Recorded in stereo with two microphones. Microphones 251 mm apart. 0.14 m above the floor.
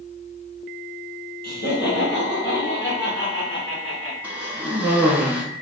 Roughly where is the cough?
Centre.